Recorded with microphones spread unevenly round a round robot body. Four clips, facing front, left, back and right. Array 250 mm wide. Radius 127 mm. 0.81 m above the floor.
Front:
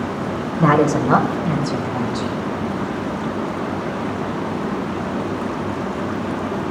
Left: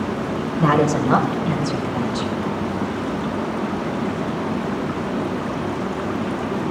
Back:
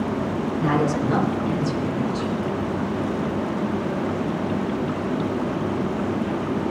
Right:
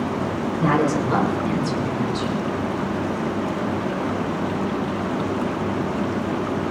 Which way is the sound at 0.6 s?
20° left.